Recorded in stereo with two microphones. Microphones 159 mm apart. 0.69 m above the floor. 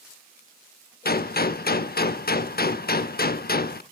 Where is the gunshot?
70° left (ahead or behind), 0.7 m.